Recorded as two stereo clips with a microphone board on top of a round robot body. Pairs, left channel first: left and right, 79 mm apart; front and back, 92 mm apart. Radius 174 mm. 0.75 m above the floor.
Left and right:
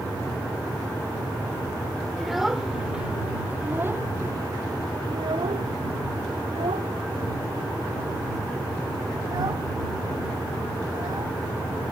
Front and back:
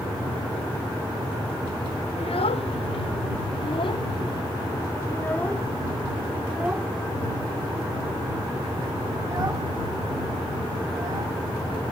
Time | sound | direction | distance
2.2 | a child speaking | straight ahead | ?